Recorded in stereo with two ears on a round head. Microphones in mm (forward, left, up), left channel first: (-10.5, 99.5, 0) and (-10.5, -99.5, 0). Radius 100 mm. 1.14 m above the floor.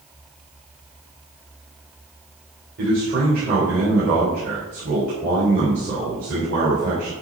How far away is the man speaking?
About 3.5 m.